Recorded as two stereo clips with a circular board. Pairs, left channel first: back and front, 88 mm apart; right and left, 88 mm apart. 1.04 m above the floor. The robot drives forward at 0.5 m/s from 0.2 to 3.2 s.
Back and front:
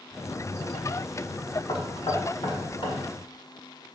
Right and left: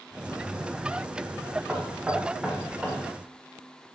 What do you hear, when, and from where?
1.7 s knocking: 165° left, 1.4 m; by 3.0 s 170° left, 2 m